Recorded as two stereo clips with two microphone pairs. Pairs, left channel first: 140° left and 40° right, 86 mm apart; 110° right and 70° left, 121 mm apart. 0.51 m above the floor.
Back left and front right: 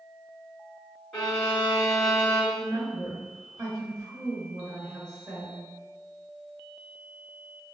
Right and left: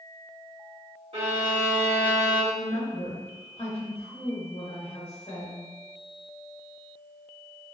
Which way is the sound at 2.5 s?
90° right.